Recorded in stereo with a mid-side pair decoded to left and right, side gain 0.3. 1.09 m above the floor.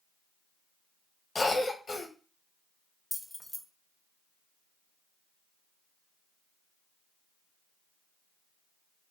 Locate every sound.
1.4 s a cough: 50° left, 0.8 m
3.1 s keys jangling: 15° left, 0.6 m